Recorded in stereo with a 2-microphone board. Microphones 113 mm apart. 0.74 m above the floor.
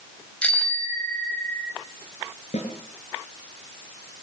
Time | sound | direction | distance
0.4 | a bicycle bell | 10° left (ahead or behind) | 3 m
2.5 | a snare drum | 90° left | 6.5 m